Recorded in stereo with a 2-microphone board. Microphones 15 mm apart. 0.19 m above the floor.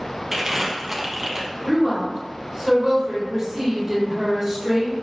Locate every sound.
0.3 s crumpling: 25° right (ahead or behind), 0.8 m
1.6 s a woman speaking: 5° right (ahead or behind), 1.7 m